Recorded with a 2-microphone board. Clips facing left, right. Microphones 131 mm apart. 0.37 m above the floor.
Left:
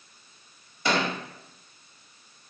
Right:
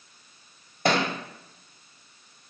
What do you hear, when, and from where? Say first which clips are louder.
0.8 s a thud: right 2 dB; 50° right (ahead or behind), 0.8 m